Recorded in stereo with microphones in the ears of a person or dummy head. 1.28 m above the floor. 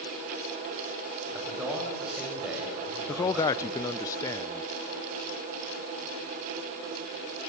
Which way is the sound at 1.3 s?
5° right (ahead or behind).